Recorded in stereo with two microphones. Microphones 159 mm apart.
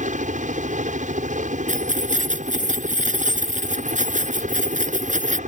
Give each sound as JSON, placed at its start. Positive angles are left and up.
{"t": 0.0, "sound": "a helicopter", "side_deg": -55}
{"t": 1.7, "sound": "keys jangling", "side_deg": -55}